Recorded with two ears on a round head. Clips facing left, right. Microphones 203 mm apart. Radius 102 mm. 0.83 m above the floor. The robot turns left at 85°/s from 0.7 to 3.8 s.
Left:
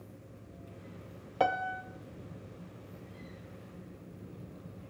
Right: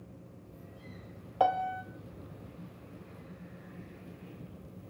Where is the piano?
30° left, 1.0 m; by 1.8 s 5° right, 1.0 m.